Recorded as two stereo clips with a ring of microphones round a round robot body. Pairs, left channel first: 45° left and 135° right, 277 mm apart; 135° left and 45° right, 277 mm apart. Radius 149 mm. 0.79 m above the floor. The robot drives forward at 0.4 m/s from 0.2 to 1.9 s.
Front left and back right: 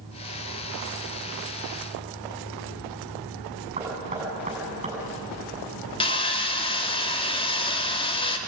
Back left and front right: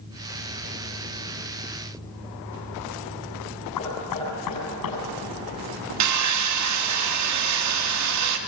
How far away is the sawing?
About 1.6 m.